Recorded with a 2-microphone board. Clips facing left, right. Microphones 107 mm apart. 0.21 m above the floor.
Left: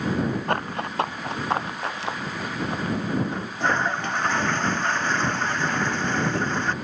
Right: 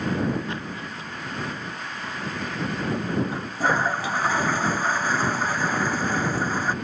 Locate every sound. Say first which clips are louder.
0.5 s running footsteps: left 6 dB; 60° left (ahead or behind); by 3.0 s 80° left
3.3 s a toilet flushing: right 1 dB; 5° right (ahead or behind)